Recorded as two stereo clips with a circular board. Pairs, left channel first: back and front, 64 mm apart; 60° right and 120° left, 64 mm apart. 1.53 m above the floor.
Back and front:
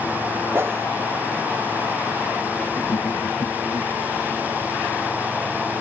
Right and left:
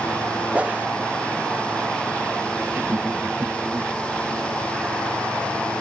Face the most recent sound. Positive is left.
turn(degrees=180)